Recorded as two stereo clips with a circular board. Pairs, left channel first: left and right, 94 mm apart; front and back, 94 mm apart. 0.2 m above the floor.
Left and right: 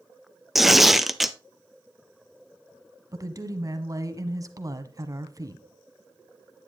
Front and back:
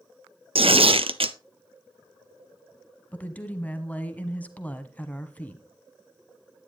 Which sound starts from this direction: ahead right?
A woman speaking, at 3.1 s.